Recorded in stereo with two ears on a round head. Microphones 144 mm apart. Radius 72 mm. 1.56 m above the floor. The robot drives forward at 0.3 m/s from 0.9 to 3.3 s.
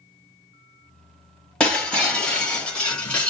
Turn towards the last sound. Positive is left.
turn(degrees=5)  # may be behind; listen again after turning